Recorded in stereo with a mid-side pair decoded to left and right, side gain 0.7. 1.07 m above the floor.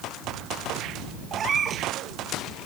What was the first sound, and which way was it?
A cat meowing, 35° right.